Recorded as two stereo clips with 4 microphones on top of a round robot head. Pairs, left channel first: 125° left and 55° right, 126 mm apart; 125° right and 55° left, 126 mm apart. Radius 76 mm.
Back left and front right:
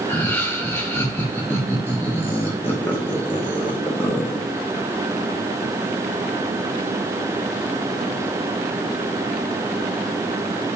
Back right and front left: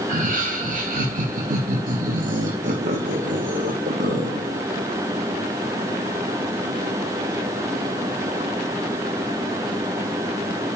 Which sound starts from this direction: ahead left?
Laughter, at 0.1 s.